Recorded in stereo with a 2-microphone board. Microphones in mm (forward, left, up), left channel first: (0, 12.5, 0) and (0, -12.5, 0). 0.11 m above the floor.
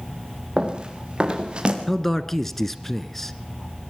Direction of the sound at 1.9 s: 10° left (ahead or behind).